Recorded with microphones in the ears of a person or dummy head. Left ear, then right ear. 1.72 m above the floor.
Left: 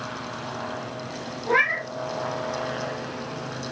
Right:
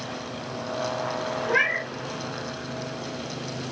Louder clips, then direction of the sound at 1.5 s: Left 2 dB; 35° left (ahead or behind).